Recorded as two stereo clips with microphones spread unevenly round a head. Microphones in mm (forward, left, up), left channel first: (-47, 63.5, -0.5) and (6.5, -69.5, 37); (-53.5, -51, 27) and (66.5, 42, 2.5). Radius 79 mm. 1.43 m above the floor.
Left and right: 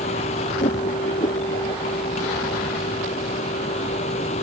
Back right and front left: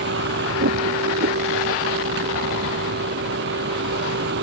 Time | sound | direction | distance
0.0 | a vehicle | 60° left | ?